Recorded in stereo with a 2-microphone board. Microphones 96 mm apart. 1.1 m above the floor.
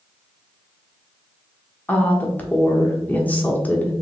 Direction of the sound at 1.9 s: 15° left (ahead or behind).